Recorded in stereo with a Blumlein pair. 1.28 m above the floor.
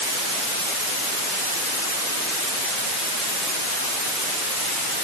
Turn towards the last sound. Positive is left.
No sound to turn to.